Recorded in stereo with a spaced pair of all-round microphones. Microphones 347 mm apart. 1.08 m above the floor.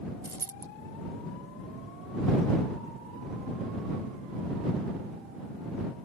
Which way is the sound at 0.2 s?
65° right (ahead or behind).